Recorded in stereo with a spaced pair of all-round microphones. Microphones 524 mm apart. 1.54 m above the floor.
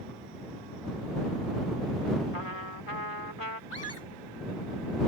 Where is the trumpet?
75° left (ahead or behind).